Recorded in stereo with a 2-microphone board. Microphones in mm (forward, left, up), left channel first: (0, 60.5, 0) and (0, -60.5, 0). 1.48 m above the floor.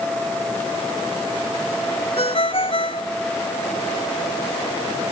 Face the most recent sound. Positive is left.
turn(degrees=50)  # may be behind; listen again after turning